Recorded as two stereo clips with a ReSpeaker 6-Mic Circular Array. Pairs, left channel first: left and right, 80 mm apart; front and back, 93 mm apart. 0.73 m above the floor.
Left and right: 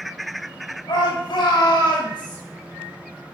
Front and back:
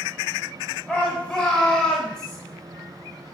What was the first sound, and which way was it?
A shout, 75° left.